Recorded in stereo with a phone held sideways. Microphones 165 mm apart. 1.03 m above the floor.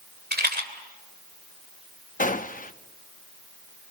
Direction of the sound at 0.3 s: 80° right.